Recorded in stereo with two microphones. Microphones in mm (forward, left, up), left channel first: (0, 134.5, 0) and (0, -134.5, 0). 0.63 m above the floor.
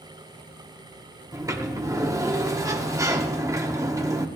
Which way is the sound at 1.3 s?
10° right (ahead or behind).